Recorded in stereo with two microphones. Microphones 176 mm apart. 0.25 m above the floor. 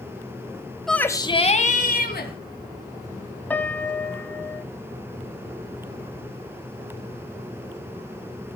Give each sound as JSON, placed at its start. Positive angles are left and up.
{"t": 0.9, "sound": "a shout", "side_deg": 0, "distance_m": 1.1}
{"t": 3.5, "sound": "a piano", "side_deg": 10, "distance_m": 1.4}